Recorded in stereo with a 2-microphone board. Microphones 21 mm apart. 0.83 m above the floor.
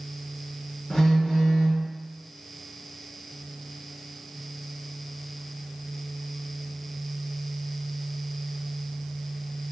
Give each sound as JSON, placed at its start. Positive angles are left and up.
{"t": 0.9, "sound": "a phone buzzing", "side_deg": 35, "distance_m": 1.2}